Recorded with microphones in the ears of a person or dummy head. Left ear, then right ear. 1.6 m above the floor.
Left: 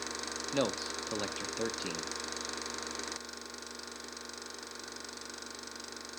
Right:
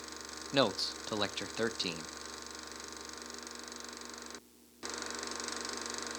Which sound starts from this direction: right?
A man speaking, at 0.5 s.